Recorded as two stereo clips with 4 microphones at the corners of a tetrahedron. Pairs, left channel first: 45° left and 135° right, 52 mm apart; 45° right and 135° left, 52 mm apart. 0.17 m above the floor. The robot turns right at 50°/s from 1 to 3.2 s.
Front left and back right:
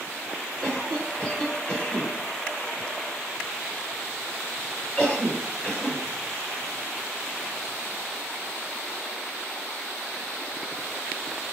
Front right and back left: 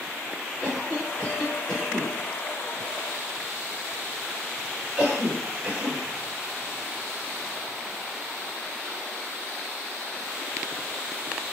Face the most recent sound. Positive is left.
turn(degrees=70)